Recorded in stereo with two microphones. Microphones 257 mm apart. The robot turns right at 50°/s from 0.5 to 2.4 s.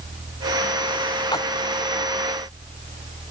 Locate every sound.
1.3 s a splash: 15° left (ahead or behind); by 1.5 s 10° left (ahead or behind)